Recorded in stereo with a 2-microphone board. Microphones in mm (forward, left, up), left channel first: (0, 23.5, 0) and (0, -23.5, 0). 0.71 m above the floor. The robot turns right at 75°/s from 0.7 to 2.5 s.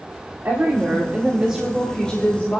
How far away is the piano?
No piano in this recording.